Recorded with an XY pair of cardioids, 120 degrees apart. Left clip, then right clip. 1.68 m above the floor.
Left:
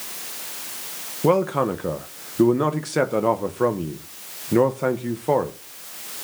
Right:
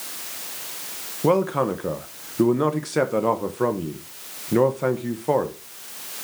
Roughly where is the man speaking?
Ahead.